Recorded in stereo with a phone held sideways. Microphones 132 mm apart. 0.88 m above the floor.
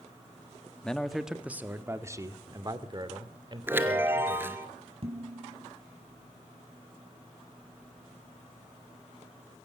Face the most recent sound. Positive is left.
turn(degrees=-50)  # may be behind; listen again after turning